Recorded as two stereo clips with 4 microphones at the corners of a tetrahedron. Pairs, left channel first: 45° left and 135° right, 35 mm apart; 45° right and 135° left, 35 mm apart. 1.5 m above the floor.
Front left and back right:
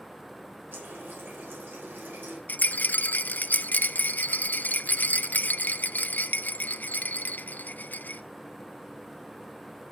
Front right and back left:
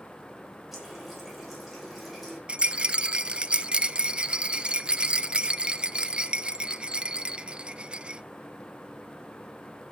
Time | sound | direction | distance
0.7 | a running tap | 140° right | 4.5 m
2.5 | a rattle | 75° left | 0.5 m